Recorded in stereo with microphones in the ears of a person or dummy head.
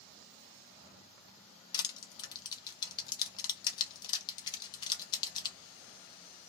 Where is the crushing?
25° left (ahead or behind), 0.6 m.